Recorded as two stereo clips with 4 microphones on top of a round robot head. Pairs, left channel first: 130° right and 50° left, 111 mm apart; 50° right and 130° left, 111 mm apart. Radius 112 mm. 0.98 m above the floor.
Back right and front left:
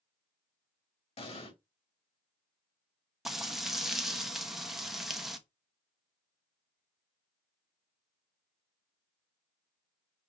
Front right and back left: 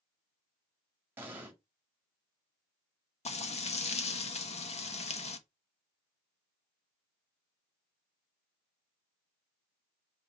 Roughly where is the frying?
Ahead right.